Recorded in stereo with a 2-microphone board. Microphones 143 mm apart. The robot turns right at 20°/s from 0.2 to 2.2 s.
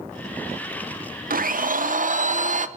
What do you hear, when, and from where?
1.3 s a blender: 80° right, 0.5 m; by 2.7 s 60° right (ahead or behind), 0.5 m